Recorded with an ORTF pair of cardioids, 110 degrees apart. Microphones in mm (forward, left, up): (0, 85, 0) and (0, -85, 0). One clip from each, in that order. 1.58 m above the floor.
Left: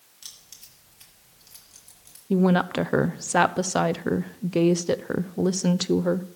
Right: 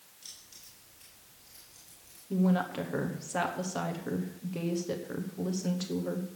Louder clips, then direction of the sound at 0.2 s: Left 5 dB; 60° left.